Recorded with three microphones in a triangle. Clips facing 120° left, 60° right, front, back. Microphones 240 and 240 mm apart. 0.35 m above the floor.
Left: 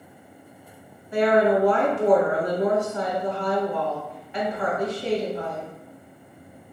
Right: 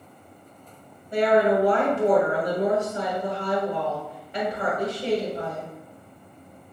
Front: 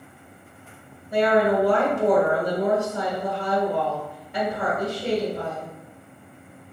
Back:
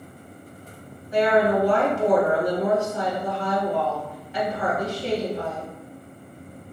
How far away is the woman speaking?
About 1.7 m.